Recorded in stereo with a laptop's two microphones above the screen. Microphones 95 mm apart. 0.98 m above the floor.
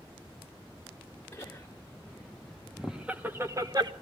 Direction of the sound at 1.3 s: 15° left (ahead or behind).